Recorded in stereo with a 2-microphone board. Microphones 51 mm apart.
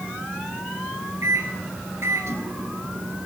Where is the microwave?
60° right (ahead or behind), 2.5 m.